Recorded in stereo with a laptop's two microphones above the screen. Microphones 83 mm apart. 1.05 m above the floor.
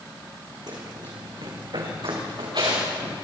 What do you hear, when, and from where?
0.7 s running footsteps: 55° right (ahead or behind), 5 m; by 3.1 s 70° right (ahead or behind), 8 m